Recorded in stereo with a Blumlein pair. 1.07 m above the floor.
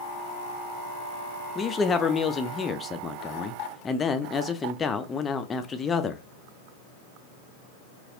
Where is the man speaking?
20° left, 0.5 m.